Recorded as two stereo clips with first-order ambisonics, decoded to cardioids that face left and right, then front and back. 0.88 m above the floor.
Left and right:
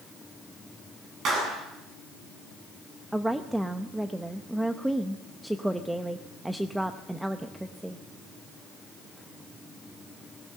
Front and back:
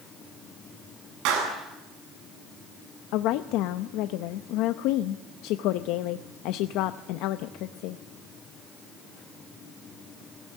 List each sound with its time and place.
1.2 s a clap: 150° right, 7.5 m
3.1 s a woman speaking: 5° right, 0.7 m